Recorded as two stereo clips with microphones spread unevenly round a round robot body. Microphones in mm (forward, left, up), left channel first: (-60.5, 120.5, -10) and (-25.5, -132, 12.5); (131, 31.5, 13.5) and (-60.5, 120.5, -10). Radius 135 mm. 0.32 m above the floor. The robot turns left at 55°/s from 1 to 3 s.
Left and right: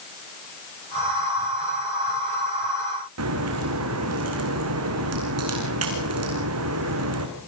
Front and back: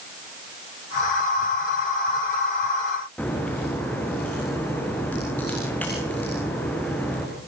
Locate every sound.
3.2 s a crack: 110° right, 4 m